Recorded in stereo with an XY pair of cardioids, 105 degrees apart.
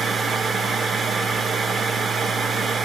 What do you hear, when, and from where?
0.0 s a machine running: 45° right, 0.9 m